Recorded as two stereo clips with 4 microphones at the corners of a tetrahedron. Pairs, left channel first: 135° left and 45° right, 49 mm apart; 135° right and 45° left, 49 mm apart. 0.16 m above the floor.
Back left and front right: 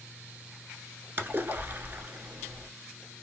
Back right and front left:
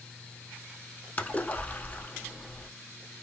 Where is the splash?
85° right, 0.5 m.